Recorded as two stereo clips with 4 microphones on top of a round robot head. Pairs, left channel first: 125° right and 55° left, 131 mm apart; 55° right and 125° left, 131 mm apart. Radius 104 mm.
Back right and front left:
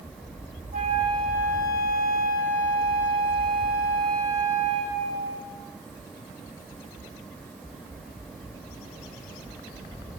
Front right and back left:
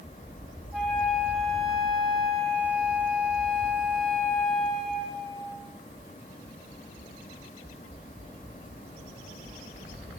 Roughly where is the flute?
Ahead left.